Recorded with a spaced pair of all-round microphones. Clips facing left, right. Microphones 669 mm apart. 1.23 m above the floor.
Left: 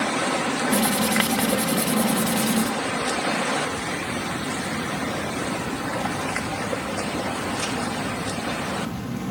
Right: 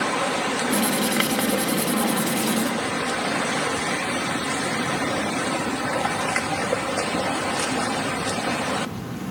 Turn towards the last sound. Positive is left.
turn(degrees=25)  # may be behind; listen again after turning